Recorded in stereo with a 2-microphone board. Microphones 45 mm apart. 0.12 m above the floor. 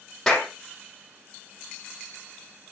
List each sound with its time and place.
0.3 s a clap: 10° left (ahead or behind), 4.5 m